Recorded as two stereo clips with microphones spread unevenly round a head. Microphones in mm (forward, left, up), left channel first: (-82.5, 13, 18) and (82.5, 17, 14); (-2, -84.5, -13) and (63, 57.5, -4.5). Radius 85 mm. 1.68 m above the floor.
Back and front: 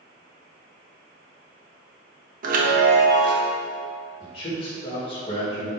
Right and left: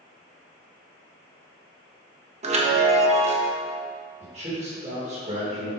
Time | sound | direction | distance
2.4 | a chime | 30° left | 1.3 m
4.2 | a man speaking | 120° left | 2.5 m